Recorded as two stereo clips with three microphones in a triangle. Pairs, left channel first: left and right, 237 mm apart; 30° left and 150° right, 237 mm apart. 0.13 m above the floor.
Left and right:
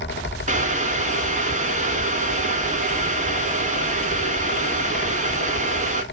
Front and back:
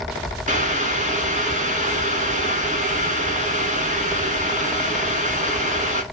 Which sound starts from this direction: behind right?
Boiling, at 0.5 s.